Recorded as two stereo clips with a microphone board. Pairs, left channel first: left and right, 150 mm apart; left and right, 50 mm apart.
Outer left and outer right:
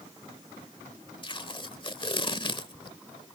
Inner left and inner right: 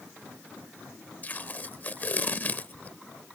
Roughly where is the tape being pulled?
Left.